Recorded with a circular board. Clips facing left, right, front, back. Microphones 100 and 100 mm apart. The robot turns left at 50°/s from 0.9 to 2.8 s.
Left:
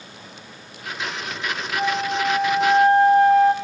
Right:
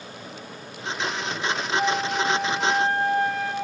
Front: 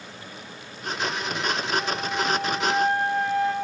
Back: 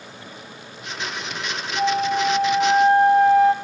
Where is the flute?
160° left, 6.5 m; by 3.5 s 110° left, 6.5 m.